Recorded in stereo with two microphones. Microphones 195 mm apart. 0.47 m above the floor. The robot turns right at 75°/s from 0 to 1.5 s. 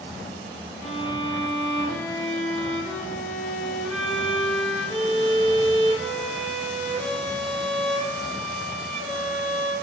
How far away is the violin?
About 1.0 m.